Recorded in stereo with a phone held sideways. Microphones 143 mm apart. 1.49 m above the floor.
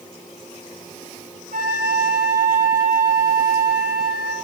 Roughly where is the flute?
Right.